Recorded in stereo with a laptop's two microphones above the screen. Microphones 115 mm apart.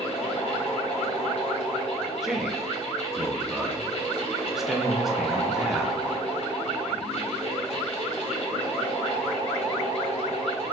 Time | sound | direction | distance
0.0 | a fan | 65° left (ahead or behind) | 3.5 m
2.2 | a man speaking | 5° right (ahead or behind) | 1.0 m